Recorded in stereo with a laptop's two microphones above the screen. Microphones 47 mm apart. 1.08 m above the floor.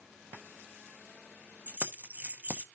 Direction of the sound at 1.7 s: 30° right (ahead or behind).